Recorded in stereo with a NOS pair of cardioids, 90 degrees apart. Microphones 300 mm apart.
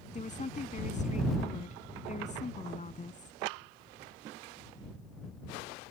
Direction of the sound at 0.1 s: 25° left.